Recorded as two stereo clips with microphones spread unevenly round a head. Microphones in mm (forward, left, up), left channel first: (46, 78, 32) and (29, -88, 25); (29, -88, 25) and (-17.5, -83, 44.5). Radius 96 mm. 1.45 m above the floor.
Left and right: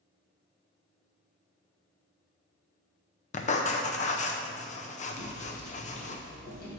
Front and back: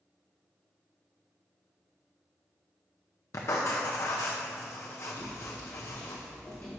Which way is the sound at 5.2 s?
15° left.